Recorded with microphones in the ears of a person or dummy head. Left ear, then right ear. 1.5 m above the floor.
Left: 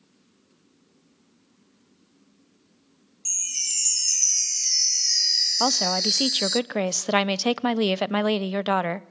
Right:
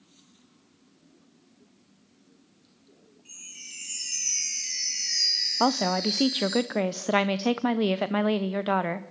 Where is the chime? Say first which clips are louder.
Left 16 dB; 75° left (ahead or behind), 1.0 m.